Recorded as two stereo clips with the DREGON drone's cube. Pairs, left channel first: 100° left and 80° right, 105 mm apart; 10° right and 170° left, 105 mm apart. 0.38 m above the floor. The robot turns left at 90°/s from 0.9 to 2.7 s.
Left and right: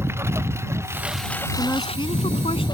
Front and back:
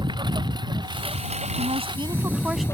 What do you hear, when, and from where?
0.0 s a lawn mower: 145° right; by 2.7 s 55° left
1.6 s a woman speaking: 175° left; by 2.6 s 75° left